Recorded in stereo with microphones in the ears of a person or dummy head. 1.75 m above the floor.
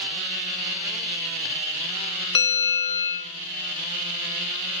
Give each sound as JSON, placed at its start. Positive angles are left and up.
{"t": 2.4, "sound": "a bell", "side_deg": 30, "distance_m": 0.5}